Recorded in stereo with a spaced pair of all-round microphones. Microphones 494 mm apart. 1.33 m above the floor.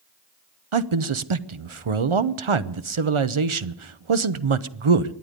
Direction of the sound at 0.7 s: 75° right (ahead or behind).